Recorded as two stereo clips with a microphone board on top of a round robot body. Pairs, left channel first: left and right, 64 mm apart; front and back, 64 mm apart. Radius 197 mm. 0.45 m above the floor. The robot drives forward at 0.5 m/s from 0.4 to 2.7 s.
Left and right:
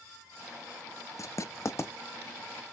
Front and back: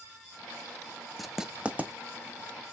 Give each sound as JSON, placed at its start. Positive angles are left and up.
{"t": 1.2, "sound": "writing", "azimuth_deg": 90, "distance_m": 0.8}